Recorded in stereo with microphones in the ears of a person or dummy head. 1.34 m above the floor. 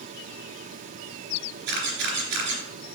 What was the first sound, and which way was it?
A camera shutter, 70° right (ahead or behind).